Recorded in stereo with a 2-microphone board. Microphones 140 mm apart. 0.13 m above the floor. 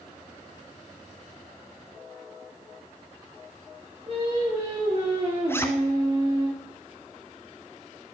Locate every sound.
4.1 s singing: 40° right (ahead or behind), 6.5 m
5.5 s a zipper: 15° left (ahead or behind), 1.7 m